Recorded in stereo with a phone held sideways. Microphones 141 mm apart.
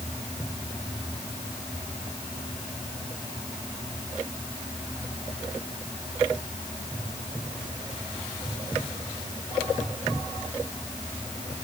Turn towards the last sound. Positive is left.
No sound to turn to.